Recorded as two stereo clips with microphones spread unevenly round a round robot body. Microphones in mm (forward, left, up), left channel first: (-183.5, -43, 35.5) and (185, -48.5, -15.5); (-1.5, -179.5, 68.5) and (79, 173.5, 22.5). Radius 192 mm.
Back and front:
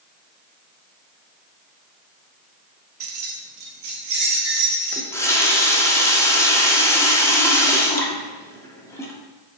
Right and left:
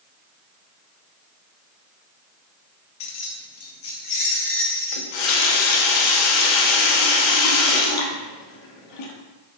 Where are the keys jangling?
55° right, 0.8 m; by 5.1 s 45° right, 3 m.